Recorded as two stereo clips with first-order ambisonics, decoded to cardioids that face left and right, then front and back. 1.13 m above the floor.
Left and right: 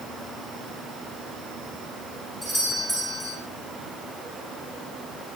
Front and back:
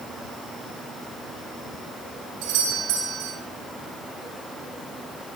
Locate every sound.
2.4 s a doorbell: 175° right, 6 m